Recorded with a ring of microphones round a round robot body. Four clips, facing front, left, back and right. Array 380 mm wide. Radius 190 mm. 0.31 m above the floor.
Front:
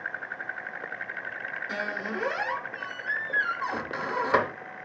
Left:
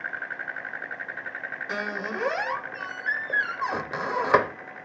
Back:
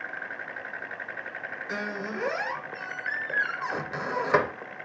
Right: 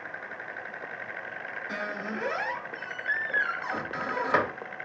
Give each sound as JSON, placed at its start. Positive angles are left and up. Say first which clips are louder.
{"t": 1.7, "sound": "a squeak", "louder": "left 3 dB, even", "azimuth_deg": 95, "distance_m": 0.7}